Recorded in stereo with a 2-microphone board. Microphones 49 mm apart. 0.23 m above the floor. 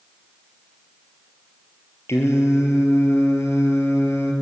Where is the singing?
65° left (ahead or behind), 3.5 m.